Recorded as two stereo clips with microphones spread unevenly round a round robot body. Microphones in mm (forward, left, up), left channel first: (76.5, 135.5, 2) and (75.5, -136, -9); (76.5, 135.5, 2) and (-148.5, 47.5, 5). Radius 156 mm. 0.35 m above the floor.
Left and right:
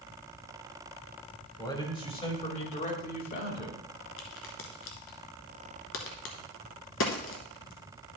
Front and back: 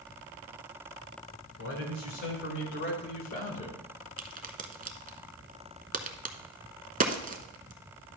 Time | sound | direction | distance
1.6 | a man speaking | 15° left | 2.5 m
4.2 | a crack | 145° left | 1.0 m